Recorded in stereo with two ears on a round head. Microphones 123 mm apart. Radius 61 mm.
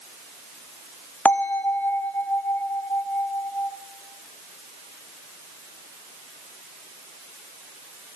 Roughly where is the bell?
Centre.